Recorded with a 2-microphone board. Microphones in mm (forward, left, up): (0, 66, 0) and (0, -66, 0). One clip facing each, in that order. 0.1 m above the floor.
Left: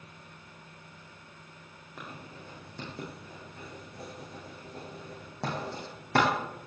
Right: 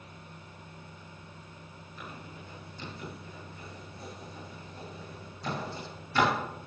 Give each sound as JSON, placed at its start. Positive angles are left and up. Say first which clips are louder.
{"t": 2.0, "sound": "writing", "louder": "left 1 dB", "side_deg": 75, "distance_m": 6.5}